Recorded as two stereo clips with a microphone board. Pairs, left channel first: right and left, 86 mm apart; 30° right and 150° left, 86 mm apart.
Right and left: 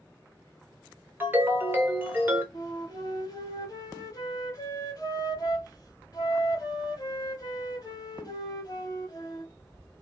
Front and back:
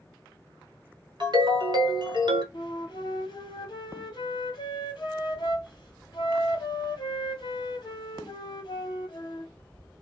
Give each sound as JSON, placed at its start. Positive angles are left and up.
{"t": 1.2, "sound": "a ringtone", "azimuth_deg": 150, "distance_m": 0.9}
{"t": 2.5, "sound": "a flute", "azimuth_deg": -55, "distance_m": 0.9}